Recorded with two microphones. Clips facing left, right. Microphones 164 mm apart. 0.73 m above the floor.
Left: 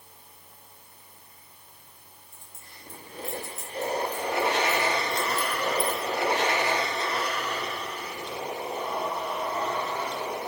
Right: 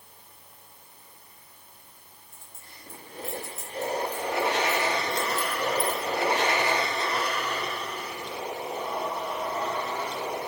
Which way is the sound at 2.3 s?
30° right (ahead or behind).